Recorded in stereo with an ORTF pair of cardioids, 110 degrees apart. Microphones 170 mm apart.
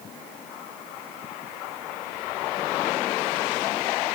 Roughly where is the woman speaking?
I don't hear a woman speaking.